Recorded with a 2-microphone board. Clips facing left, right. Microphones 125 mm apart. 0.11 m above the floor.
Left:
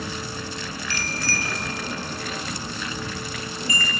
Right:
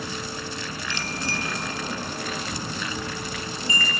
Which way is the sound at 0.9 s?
20° right (ahead or behind).